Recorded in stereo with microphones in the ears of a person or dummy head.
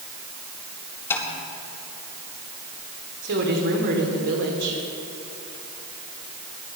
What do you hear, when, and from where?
1.1 s tapping: 15° left (ahead or behind), 4 m
3.2 s a woman speaking: 55° right (ahead or behind), 3.5 m